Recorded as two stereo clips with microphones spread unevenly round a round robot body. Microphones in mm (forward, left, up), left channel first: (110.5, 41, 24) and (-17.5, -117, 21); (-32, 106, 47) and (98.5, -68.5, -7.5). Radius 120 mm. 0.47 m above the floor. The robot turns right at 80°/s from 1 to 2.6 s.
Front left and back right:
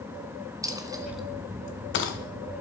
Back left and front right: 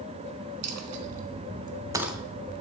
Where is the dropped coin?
55° right, 2 m; by 2.2 s 40° left, 2 m.